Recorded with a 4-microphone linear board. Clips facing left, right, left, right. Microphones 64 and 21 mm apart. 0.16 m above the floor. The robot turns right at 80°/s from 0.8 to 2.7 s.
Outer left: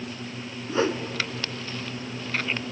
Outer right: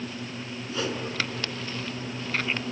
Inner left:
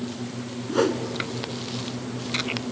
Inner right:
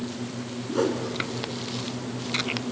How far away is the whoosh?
About 1.2 m.